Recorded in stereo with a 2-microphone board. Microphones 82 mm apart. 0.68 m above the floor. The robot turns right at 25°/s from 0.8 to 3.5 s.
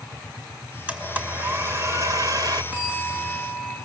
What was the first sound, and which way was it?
A blender, 165° right.